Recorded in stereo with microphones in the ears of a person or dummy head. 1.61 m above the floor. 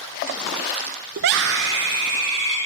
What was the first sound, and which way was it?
A scream, 65° right (ahead or behind).